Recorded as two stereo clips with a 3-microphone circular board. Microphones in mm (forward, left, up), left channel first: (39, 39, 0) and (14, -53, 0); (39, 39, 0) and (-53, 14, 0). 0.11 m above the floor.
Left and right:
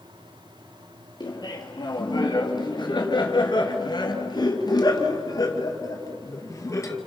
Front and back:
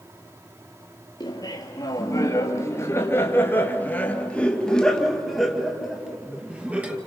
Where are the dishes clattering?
I don't hear dishes clattering.